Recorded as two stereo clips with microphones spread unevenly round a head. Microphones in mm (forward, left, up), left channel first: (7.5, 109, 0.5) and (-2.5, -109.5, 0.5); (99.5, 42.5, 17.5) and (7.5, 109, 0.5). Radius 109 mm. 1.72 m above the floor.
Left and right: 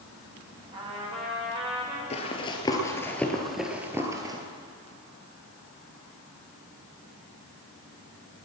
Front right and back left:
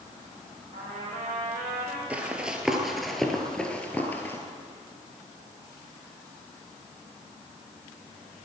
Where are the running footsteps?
60° left, 1.9 m; by 4.4 s 45° right, 1.8 m.